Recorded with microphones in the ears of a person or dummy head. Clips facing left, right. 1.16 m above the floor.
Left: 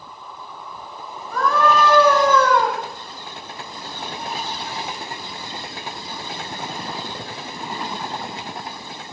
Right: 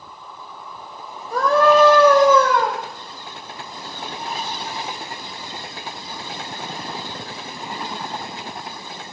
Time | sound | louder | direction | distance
1.3 | a scream | right 4 dB | 30° right (ahead or behind) | 1.8 m